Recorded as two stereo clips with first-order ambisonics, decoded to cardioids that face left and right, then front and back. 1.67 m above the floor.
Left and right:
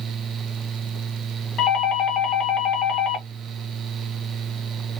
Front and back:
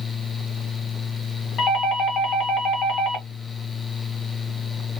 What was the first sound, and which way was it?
A doorbell, 45° left.